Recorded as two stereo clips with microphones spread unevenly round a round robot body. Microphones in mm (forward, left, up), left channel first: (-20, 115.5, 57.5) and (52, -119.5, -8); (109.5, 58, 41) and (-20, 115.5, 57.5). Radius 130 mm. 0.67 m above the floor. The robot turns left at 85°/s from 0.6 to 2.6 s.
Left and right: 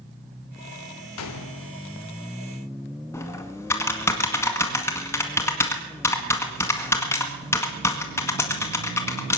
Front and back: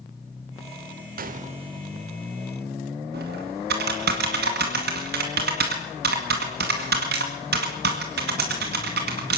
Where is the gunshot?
140° left, 1.1 m; by 1.8 s 85° left, 1.1 m.